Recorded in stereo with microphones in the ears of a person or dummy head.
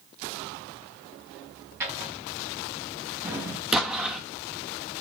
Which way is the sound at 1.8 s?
10° right (ahead or behind).